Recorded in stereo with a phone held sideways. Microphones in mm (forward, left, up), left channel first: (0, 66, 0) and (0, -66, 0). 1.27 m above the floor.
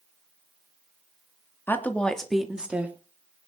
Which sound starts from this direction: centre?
A woman speaking, at 1.7 s.